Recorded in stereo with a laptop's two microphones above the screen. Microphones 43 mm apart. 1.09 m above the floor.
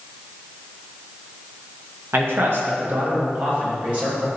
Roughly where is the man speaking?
Right.